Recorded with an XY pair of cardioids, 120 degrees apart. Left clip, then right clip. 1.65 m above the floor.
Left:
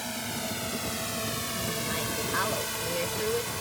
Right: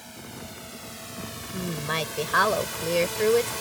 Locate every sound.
0.0 s a drone: 50° left; by 3.6 s 15° right
1.5 s a woman speaking: 50° right